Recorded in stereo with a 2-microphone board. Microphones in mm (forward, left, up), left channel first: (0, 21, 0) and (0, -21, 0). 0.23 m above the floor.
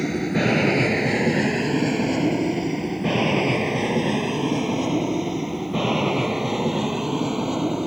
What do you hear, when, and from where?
0.0 s an aircraft: centre (ahead or behind); by 7.9 s 10° right (ahead or behind)